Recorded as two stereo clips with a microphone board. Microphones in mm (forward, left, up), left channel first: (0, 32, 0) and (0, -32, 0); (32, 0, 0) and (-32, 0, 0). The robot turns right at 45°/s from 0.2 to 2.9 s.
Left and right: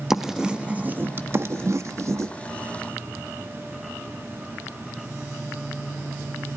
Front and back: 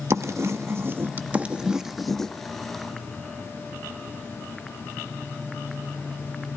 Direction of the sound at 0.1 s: 170° right.